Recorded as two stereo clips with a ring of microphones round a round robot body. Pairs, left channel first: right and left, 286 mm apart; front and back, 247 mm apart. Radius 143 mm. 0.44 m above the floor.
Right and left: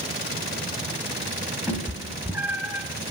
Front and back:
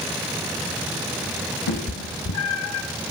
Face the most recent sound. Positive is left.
turn(degrees=5)